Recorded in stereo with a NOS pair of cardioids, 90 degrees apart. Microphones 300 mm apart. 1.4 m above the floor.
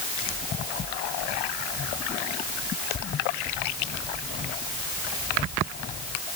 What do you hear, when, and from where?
Only background noise.